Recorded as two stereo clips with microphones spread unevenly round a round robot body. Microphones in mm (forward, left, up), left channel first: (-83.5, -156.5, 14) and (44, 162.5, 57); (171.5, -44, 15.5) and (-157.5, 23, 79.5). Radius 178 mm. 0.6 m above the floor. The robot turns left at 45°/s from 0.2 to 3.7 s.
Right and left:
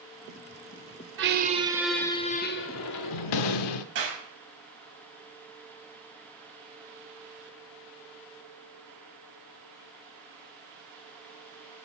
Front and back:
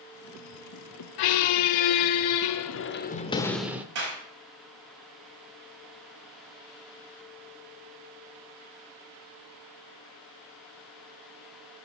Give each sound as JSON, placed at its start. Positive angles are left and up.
{"t": 1.2, "sound": "a squeak", "azimuth_deg": 10, "distance_m": 0.8}
{"t": 4.0, "sound": "a clap", "azimuth_deg": 120, "distance_m": 4.5}